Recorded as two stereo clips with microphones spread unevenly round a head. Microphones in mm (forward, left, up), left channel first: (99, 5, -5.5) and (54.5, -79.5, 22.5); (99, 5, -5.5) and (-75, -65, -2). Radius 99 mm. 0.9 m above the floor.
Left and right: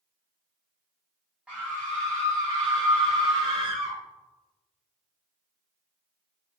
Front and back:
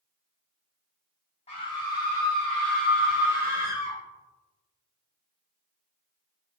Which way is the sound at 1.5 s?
30° right.